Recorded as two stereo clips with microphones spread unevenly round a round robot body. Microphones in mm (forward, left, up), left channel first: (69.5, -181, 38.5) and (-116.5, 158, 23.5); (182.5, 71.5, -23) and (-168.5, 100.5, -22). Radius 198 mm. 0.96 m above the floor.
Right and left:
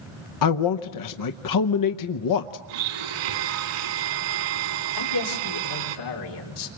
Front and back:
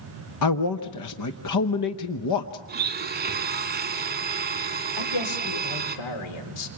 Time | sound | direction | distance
0.4 | a man speaking | 35° right | 0.8 m
2.7 | a blender | 115° left | 2 m
5.0 | a man speaking | 20° right | 3.5 m